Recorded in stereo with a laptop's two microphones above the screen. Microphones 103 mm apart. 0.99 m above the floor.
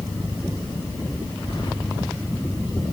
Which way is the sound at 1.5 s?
45° left (ahead or behind).